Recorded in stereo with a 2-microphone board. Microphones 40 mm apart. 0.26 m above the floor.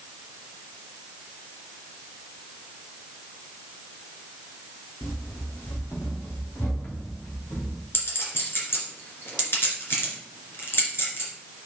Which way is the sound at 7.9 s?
70° left (ahead or behind).